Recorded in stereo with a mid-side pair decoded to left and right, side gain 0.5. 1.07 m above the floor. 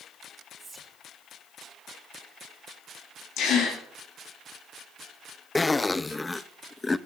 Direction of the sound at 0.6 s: 20° right.